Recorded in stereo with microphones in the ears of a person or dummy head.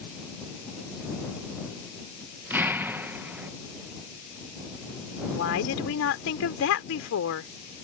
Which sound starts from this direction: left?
A woman speaking, at 5.3 s.